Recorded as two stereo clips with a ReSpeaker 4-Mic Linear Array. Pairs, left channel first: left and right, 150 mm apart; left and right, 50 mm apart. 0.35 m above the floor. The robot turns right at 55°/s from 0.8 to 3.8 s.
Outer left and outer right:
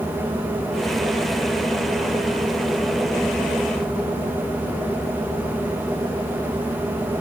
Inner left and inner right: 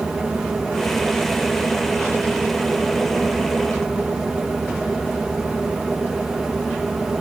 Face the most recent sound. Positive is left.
No sound to turn to.